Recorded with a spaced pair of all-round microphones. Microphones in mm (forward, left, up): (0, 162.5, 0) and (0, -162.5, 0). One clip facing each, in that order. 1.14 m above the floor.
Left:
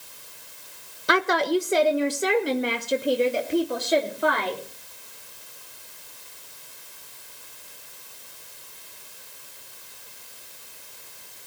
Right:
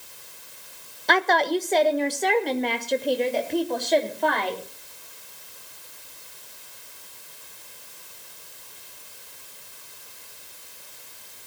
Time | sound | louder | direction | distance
1.1 | a woman speaking | left 1 dB | 10° left (ahead or behind) | 0.9 m